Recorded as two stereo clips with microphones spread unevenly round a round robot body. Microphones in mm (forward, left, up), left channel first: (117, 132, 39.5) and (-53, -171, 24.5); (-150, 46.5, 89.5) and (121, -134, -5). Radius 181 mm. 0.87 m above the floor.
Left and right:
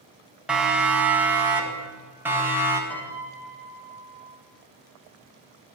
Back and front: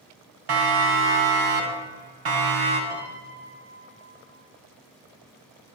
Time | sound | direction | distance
0.5 | a siren | 30° right | 7.5 m
2.9 | a piano | 25° right | 8 m